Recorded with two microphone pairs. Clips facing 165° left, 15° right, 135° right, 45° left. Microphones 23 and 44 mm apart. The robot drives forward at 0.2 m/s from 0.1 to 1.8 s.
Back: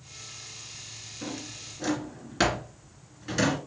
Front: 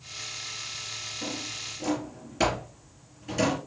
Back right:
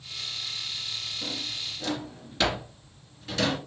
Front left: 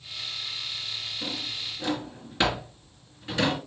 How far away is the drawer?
About 1.7 m.